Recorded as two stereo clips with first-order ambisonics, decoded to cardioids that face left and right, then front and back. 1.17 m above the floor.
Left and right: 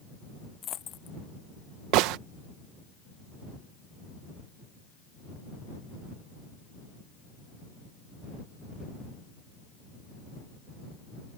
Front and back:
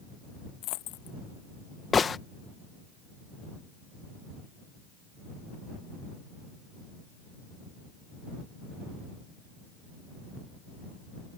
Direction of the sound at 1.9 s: 70° right.